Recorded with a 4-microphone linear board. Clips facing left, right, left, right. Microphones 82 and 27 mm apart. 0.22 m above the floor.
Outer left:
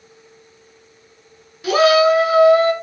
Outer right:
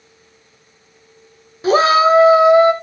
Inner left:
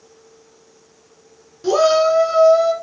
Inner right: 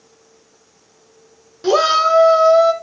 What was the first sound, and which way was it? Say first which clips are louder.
A shout: outer right 1 dB, even; 30° right (ahead or behind).